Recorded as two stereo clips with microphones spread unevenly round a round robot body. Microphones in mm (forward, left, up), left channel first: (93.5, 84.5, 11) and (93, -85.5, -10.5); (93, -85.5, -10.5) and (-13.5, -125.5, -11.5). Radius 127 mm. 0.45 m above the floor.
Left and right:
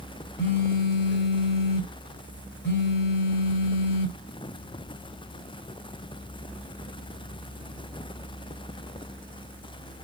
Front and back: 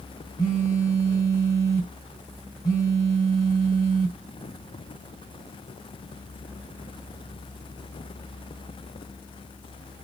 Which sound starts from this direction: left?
A phone buzzing, at 0.4 s.